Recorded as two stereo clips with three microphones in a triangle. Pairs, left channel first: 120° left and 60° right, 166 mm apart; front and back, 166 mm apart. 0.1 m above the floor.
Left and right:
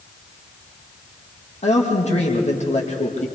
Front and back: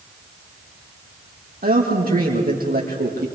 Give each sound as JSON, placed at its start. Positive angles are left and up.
{"t": 1.6, "sound": "a man speaking", "azimuth_deg": 165, "distance_m": 5.0}